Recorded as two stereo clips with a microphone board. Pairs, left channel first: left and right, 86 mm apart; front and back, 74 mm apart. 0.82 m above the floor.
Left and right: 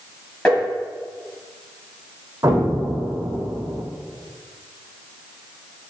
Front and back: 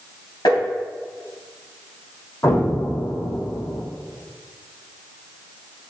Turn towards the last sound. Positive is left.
turn(degrees=-45)